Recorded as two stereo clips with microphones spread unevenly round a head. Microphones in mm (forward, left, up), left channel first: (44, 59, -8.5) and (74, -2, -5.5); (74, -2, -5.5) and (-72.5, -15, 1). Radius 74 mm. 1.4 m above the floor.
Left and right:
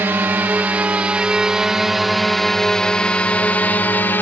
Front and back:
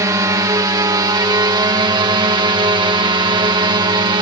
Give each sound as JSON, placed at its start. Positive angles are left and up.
{"t": 0.0, "sound": "a drone", "azimuth_deg": -115}